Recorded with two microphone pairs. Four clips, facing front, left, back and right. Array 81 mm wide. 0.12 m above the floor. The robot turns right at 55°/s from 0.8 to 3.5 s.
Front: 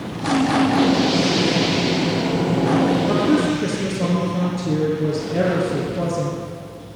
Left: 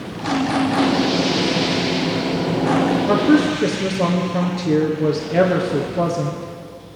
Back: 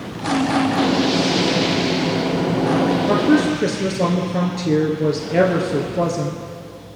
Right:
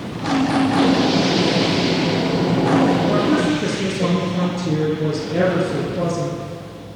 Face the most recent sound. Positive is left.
turn(degrees=155)